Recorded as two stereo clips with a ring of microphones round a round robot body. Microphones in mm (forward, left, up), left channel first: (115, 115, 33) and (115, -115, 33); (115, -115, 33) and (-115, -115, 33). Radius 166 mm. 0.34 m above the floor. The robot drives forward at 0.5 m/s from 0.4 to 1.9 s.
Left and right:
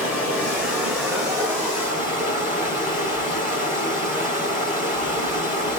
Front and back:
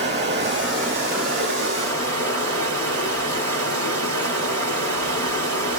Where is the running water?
175° right, 1.1 m; by 5.8 s straight behind, 1.7 m.